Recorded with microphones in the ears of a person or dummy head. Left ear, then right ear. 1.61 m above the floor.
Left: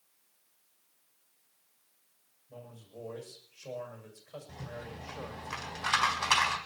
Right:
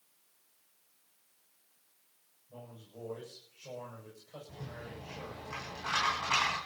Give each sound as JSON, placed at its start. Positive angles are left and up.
{"t": 2.5, "sound": "a man speaking", "side_deg": 65, "distance_m": 7.0}
{"t": 4.5, "sound": "a rattle", "side_deg": 70, "distance_m": 4.0}